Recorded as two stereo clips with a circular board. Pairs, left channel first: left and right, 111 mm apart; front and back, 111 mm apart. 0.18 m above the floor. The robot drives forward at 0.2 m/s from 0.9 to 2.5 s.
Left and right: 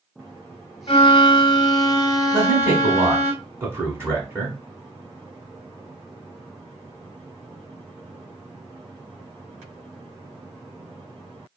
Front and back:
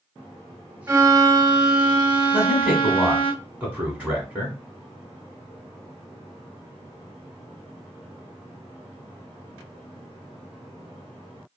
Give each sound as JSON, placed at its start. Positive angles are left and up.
{"t": 0.9, "sound": "a violin", "azimuth_deg": 120, "distance_m": 0.5}
{"t": 2.3, "sound": "a man speaking", "azimuth_deg": -115, "distance_m": 1.1}